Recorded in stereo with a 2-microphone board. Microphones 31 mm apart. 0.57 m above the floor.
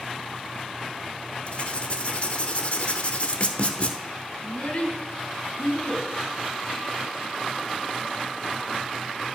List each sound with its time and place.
1.5 s writing: 45° left (ahead or behind), 0.9 m
4.4 s a child speaking: 50° left (ahead or behind), 3 m